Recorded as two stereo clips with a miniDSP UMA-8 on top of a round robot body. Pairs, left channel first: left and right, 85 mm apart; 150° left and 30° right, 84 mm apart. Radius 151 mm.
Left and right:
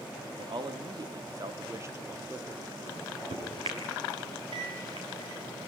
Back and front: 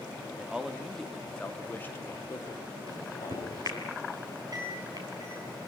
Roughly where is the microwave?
Right.